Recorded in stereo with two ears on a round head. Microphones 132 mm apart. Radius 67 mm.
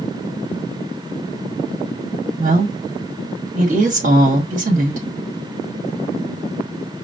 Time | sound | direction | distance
2.4 | a woman speaking | 60° right (ahead or behind) | 1.7 m